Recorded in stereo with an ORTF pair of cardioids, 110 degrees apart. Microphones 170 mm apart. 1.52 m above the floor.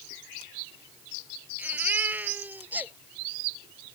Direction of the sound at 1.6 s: 10° right.